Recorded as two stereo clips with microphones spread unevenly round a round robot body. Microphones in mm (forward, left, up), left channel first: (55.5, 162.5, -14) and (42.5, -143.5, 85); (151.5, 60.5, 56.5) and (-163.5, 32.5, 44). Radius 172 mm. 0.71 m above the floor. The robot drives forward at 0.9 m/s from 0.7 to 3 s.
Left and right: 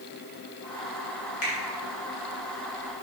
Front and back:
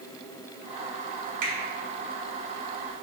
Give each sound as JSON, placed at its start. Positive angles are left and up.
{"t": 1.4, "sound": "a finger snap", "azimuth_deg": 155, "distance_m": 2.5}